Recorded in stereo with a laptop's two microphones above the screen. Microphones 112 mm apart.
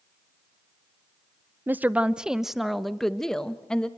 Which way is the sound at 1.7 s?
20° right (ahead or behind).